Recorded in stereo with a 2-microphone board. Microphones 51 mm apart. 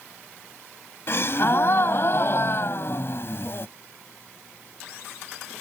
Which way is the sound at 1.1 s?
50° left (ahead or behind).